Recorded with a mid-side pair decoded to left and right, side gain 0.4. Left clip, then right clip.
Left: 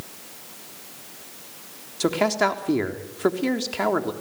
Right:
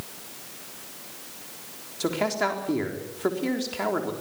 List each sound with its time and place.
2.0 s a man speaking: 40° left, 3.5 m